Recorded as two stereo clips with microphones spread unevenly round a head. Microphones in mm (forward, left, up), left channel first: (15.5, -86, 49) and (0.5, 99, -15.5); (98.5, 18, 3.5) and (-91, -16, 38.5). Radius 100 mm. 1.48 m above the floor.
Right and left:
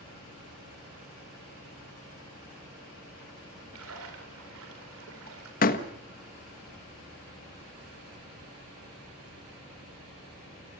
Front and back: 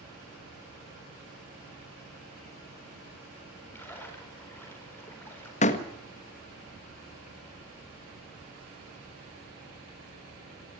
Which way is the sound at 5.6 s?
50° right.